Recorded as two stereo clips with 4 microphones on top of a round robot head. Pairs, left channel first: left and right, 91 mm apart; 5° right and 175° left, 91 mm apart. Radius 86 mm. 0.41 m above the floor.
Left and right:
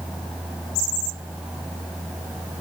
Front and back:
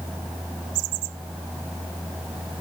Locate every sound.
Only background noise.